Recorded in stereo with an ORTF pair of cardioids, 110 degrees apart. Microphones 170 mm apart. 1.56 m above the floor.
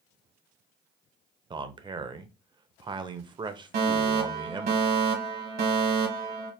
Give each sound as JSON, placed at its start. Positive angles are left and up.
{"t": 1.5, "sound": "a man speaking", "azimuth_deg": -25, "distance_m": 0.8}
{"t": 3.7, "sound": "a fire alarm", "azimuth_deg": -65, "distance_m": 2.0}